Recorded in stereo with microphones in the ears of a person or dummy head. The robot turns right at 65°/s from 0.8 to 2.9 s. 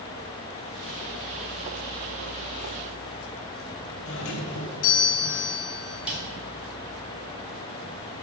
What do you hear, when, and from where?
4.0 s a doorbell: 60° left (ahead or behind), 1.5 m
6.1 s a snare drum: 5° right (ahead or behind), 3.5 m